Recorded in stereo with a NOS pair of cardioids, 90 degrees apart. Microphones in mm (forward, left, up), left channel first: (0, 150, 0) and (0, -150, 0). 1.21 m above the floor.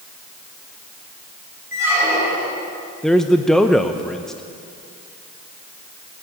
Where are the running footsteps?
No running footsteps in this recording.